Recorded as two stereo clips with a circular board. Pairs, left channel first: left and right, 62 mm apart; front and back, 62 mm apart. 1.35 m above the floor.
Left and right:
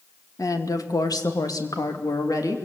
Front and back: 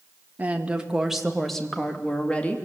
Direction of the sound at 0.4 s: 115° left.